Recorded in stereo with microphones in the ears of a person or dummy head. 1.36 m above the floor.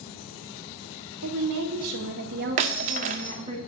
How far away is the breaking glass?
About 0.7 m.